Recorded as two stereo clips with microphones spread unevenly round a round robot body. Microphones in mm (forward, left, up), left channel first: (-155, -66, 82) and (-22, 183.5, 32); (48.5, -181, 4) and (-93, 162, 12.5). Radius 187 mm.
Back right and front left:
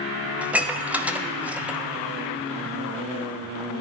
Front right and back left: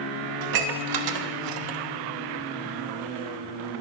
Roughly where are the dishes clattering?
Behind left.